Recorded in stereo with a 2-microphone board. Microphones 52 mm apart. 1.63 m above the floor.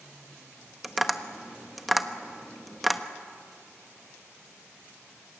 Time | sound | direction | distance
0.8 | tapping | centre (ahead or behind) | 1.1 m